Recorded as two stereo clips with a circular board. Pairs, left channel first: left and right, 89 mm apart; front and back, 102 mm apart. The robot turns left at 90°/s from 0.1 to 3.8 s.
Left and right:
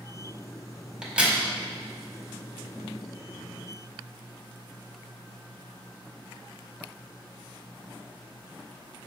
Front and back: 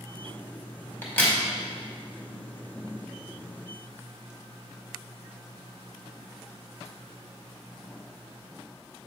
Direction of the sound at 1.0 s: 20° right.